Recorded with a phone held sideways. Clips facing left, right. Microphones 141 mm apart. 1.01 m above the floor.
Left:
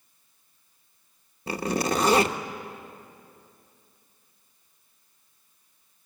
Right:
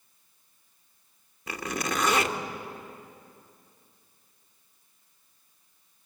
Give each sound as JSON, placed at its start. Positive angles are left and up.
{"t": 1.5, "sound": "a zipper", "side_deg": 30, "distance_m": 0.9}